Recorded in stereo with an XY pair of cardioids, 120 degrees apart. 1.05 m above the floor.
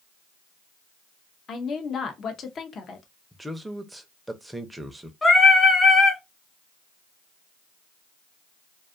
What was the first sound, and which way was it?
A woman speaking, 45° left.